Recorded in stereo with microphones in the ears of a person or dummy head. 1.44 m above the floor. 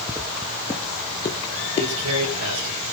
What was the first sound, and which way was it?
Footsteps, 5° right (ahead or behind).